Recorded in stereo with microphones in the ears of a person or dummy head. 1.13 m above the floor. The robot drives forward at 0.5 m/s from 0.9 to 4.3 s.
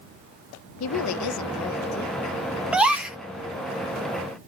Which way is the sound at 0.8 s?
85° left.